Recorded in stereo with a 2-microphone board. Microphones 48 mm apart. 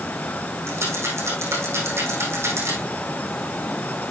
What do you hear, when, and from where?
0.7 s a rattle: 65° right (ahead or behind), 4.5 m